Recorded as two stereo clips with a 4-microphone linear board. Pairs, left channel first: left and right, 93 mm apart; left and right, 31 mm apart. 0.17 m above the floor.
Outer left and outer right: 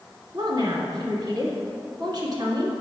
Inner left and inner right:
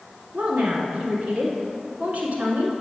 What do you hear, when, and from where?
0.3 s a woman speaking: 50° right (ahead or behind), 1.5 m